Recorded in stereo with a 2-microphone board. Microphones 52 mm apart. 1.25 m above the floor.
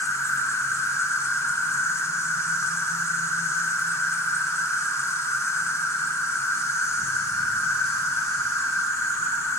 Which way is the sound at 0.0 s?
65° left (ahead or behind).